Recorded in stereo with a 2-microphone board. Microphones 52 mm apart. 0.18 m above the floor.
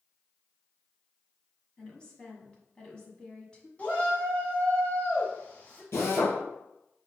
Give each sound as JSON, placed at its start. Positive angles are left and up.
{"t": 1.8, "sound": "a woman speaking", "side_deg": 15, "distance_m": 1.1}
{"t": 3.8, "sound": "a shout", "side_deg": 30, "distance_m": 1.3}
{"t": 5.9, "sound": "a drill", "side_deg": 50, "distance_m": 2.0}